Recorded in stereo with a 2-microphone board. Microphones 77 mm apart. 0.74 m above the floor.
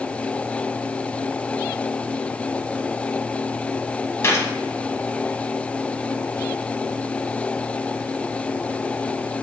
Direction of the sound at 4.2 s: 35° left (ahead or behind).